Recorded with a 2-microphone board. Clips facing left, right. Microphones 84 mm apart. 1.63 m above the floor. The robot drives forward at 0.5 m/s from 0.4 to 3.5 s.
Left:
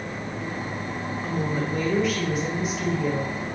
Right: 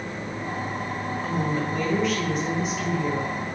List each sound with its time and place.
1.2 s a woman speaking: 5° left (ahead or behind), 0.7 m